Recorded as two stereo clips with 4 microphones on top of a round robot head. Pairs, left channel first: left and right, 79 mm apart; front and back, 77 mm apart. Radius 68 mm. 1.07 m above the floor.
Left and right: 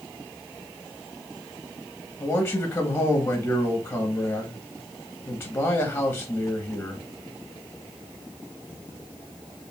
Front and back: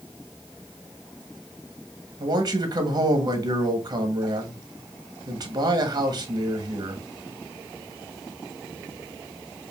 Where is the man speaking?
150° left, 1.3 m.